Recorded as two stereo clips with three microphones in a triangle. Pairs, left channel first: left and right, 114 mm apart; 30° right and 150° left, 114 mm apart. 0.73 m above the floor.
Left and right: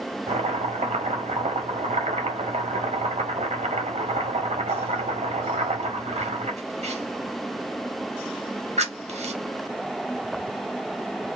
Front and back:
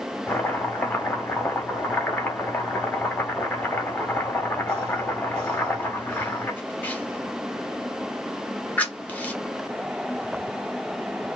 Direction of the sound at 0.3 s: 105° right.